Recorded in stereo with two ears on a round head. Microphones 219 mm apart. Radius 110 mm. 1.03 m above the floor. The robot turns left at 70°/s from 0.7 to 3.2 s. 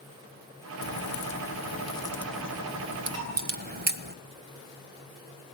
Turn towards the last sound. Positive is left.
turn(degrees=-60)  # may be behind; listen again after turning